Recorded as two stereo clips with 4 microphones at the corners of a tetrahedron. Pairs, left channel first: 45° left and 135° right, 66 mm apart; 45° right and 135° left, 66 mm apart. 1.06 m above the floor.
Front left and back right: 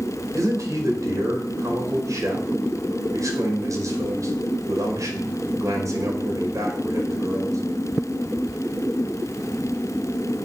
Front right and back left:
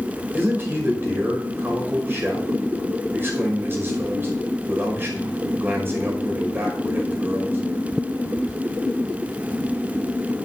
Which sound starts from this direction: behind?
A man speaking, at 0.3 s.